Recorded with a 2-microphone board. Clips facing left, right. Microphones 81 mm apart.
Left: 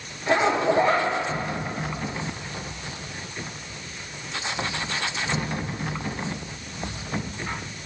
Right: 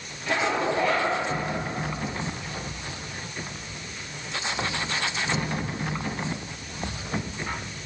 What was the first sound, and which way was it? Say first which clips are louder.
A zipper: left 4 dB; 35° left (ahead or behind).